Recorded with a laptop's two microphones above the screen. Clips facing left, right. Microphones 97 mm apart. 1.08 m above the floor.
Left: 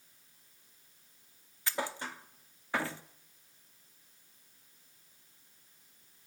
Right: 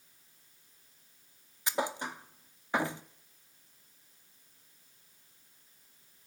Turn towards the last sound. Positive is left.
turn(degrees=-15)  # may be behind; listen again after turning